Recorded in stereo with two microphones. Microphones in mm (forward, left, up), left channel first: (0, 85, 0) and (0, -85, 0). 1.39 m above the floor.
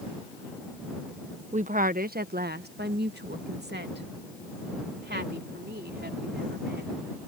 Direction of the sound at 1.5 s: 45° right (ahead or behind).